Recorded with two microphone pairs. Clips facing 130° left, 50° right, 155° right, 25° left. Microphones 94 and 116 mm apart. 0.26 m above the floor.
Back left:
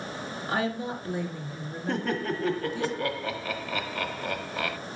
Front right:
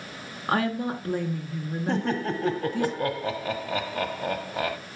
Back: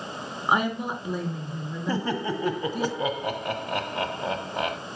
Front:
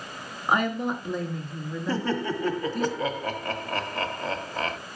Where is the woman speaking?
75° right, 3.5 m.